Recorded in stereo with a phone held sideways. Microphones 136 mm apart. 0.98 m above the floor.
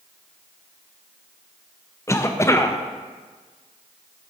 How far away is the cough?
About 0.5 m.